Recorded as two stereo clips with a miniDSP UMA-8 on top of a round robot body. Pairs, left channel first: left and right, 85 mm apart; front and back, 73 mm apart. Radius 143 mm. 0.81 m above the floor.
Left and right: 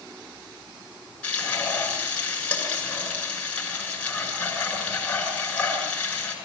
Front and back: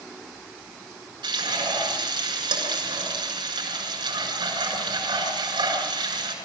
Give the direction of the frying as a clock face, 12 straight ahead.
7 o'clock.